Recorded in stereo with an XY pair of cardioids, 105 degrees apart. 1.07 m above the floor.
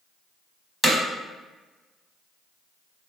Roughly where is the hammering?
Ahead.